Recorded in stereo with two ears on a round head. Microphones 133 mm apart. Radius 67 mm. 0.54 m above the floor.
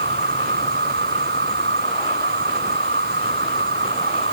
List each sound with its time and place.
0.0 s an insect: 65° right (ahead or behind)